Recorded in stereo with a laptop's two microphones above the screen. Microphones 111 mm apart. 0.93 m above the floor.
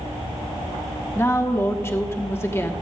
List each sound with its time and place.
1.1 s a woman speaking: 25° left (ahead or behind), 1.0 m